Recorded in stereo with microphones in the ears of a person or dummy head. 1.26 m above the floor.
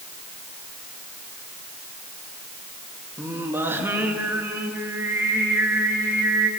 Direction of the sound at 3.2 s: 10° right (ahead or behind).